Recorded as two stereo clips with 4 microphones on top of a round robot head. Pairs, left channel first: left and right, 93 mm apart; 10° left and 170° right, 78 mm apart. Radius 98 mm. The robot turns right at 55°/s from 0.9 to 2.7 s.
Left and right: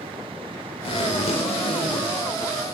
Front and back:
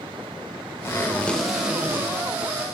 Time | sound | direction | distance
0.8 | a zipper | 70° left | 2 m